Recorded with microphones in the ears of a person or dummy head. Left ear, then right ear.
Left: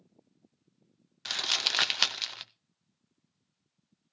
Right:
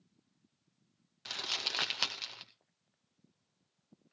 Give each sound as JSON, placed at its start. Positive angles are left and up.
{"t": 1.2, "sound": "crumpling", "side_deg": 35, "distance_m": 0.6}